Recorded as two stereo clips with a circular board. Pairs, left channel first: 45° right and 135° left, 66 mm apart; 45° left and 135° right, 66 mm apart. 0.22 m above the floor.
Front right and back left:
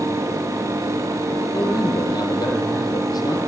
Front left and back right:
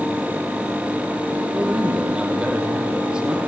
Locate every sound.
1.5 s a man speaking: 60° right, 7.5 m